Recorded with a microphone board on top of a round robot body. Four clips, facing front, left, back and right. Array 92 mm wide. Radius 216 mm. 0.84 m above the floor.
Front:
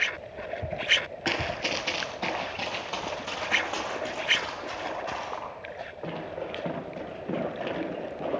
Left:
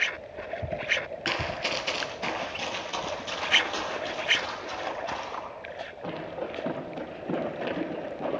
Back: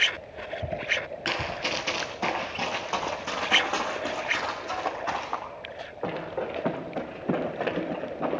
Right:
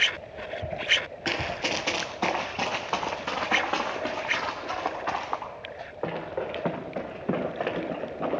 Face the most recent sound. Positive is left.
turn(degrees=-120)